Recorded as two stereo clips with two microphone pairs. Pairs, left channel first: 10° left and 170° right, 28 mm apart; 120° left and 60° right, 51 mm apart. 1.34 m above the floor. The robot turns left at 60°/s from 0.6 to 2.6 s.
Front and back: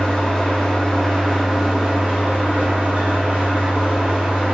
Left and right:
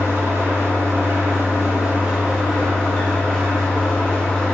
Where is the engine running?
40° right, 1.2 m; by 4.6 s 160° right, 1.2 m.